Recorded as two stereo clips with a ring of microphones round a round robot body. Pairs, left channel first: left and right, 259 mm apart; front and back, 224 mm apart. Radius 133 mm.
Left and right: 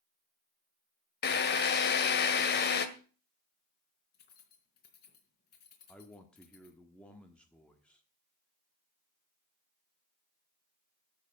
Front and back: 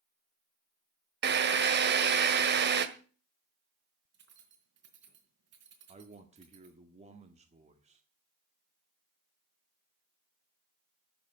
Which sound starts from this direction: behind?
A man speaking, at 5.9 s.